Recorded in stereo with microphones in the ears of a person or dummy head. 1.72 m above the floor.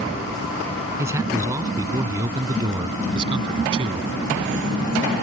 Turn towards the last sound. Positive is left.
turn(degrees=-30)  # may be behind; listen again after turning